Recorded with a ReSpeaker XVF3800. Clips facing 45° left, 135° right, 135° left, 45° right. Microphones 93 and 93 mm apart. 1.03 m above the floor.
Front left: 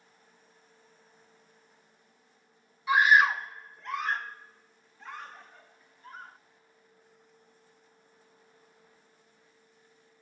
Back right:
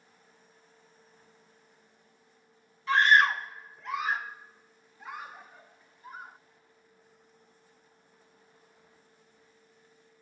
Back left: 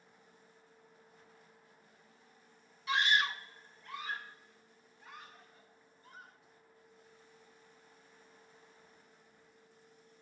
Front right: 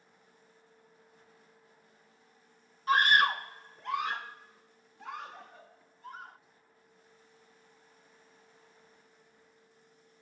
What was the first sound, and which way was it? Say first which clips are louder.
A scream: front left 1 dB, front right 7 dB; 30° right.